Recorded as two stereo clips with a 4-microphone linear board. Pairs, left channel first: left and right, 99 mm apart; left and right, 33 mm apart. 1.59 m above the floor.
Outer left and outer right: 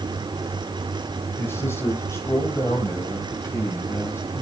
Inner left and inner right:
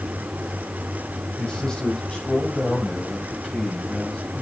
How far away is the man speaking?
About 6.5 m.